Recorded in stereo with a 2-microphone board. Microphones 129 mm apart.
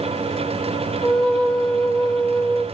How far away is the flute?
About 1.9 m.